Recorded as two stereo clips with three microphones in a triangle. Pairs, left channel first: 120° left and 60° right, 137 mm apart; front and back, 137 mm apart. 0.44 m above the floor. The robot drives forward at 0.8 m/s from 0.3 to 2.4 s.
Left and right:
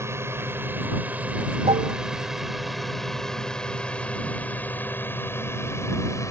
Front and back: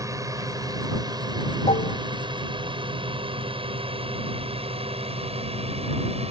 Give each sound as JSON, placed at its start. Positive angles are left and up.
{"t": 0.0, "sound": "a drone", "azimuth_deg": -125}
{"t": 1.7, "sound": "dishes clattering", "azimuth_deg": -25}